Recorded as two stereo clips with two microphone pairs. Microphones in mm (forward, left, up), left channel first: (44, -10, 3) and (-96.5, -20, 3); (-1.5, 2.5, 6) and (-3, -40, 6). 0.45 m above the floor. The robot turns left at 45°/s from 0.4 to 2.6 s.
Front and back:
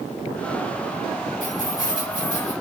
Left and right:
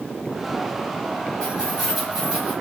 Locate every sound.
1.4 s keys jangling: 20° left, 2 m; by 2.5 s 30° right, 2 m